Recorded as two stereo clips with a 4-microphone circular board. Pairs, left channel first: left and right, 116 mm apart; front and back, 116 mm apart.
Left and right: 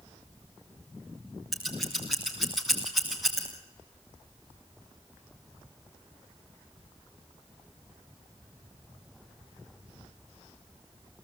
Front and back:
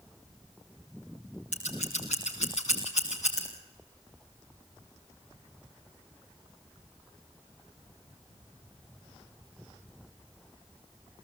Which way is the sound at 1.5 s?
Straight ahead.